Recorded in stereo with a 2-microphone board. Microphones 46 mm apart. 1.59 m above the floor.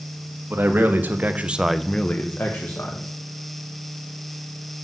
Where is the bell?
No bell in this recording.